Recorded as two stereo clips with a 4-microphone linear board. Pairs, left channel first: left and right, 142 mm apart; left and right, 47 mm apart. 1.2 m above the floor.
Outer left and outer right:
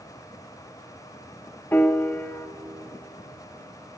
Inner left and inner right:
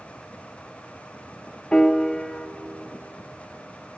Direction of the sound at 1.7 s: 15° left (ahead or behind).